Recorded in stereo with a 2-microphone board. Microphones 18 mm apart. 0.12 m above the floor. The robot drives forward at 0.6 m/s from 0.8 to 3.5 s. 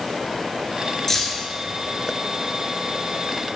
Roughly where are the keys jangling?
Centre.